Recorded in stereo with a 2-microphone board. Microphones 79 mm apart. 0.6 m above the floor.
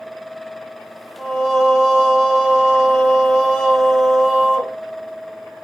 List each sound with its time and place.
1.2 s singing: 5° right (ahead or behind), 0.8 m